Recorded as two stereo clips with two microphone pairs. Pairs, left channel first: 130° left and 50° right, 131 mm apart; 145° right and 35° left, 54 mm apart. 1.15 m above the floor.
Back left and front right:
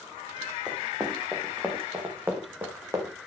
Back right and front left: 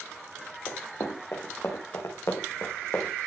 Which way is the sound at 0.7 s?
135° right.